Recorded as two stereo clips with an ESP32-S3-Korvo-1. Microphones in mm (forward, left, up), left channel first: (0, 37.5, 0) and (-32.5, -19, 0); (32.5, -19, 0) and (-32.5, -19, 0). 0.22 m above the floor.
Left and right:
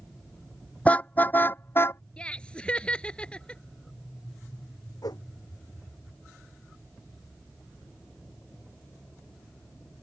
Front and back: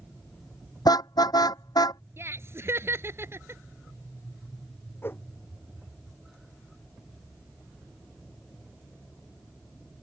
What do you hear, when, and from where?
0.8 s a car horn: 10° right; by 2.0 s 10° left
2.2 s laughter: 135° left
5.0 s a whoosh: 55° left